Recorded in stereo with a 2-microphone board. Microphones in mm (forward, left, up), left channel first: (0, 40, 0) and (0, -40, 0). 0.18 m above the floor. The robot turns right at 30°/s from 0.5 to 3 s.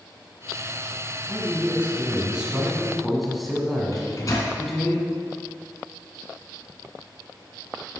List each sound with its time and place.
1.3 s a man speaking: 50° right, 1.5 m; by 4.9 s straight ahead, 1.5 m
3.9 s a microwave: 45° left (ahead or behind), 1.6 m